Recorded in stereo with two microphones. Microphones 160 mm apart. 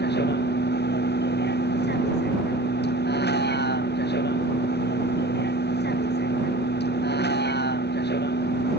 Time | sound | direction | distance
0.0 | a vehicle | 85° left | ?